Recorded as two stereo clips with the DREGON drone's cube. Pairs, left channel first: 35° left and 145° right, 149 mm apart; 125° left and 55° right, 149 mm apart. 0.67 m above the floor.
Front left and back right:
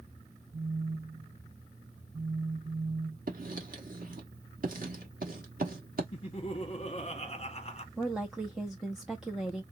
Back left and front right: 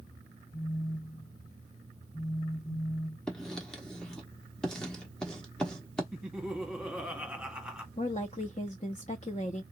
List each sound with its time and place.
0.5 s a phone buzzing: 150° right, 0.9 m
3.3 s writing: 150° right, 1.2 m
6.1 s laughter: 25° left, 1.3 m
8.0 s a woman speaking: 130° left, 0.7 m